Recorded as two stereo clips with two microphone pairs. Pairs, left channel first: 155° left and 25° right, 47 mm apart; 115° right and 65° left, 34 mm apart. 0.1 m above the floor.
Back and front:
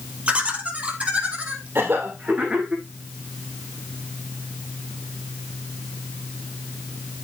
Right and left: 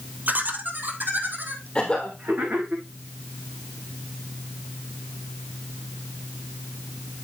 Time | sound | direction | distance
0.3 | laughter | 35° left | 2.5 m
1.8 | a cough | 60° right | 2.5 m